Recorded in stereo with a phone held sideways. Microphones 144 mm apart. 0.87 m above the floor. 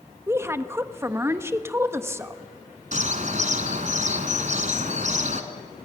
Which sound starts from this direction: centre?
A woman speaking, at 0.3 s.